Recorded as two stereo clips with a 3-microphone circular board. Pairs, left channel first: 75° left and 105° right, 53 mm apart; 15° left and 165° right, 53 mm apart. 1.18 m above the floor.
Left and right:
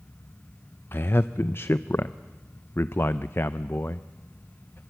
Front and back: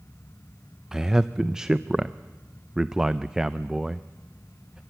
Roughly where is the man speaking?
Behind left.